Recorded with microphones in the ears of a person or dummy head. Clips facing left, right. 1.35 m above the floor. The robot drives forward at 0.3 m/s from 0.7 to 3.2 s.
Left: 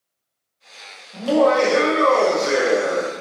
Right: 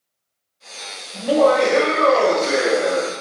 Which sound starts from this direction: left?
Laughter, at 1.1 s.